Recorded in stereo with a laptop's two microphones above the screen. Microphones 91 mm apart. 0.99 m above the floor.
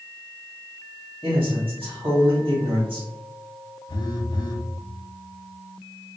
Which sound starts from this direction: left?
A phone buzzing, at 3.9 s.